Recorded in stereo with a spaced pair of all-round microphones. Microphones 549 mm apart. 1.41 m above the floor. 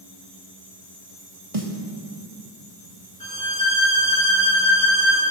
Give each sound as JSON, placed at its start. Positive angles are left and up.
{"t": 1.5, "sound": "a snare drum", "side_deg": -80, "distance_m": 2.0}
{"t": 3.2, "sound": "a violin", "side_deg": 75, "distance_m": 6.5}